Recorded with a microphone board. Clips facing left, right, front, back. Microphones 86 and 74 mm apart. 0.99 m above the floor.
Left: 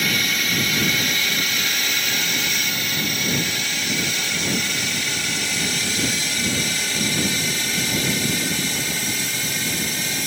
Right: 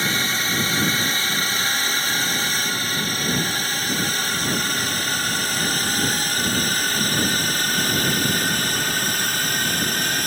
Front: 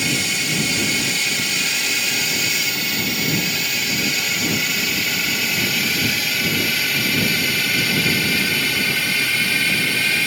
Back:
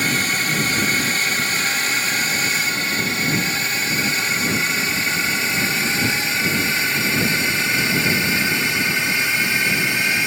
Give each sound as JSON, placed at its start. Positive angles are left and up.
{"t": 0.0, "sound": "a drone", "azimuth_deg": -140}